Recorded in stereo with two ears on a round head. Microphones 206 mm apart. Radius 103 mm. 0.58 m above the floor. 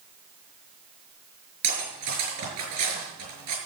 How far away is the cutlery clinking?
About 6 m.